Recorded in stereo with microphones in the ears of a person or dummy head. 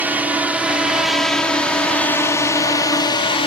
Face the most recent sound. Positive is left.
turn(degrees=30)  # may be behind; listen again after turning